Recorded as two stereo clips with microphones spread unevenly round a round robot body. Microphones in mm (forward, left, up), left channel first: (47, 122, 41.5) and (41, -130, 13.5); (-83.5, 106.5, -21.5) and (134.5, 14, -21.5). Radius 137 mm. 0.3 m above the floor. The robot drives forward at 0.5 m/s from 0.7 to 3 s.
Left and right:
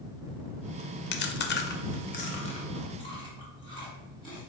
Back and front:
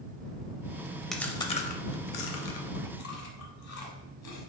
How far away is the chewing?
About 0.5 m.